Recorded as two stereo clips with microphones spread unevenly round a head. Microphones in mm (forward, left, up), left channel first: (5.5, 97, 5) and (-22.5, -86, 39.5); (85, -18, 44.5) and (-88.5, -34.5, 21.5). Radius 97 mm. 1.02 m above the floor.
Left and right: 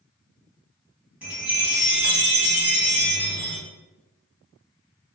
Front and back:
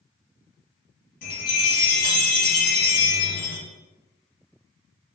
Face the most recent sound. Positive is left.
turn(degrees=-5)